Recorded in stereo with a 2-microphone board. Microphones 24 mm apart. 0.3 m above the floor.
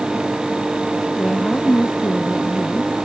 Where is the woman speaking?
50° left (ahead or behind); by 2.9 s 45° left (ahead or behind).